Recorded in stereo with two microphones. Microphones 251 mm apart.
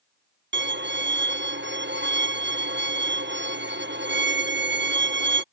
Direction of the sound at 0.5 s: 45° right (ahead or behind).